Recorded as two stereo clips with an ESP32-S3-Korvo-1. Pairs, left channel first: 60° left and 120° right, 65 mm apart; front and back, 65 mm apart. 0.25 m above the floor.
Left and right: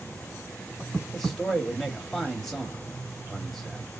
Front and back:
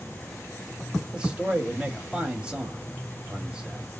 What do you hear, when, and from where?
1.1 s a man speaking: 140° left, 1.0 m